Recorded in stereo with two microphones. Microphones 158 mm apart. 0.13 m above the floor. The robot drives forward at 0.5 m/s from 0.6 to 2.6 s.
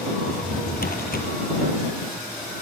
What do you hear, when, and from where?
0.3 s a drawer: 70° left (ahead or behind), 2 m